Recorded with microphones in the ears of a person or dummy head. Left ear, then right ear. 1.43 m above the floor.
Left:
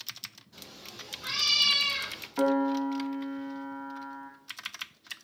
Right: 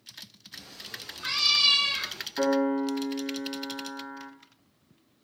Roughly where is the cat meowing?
Right.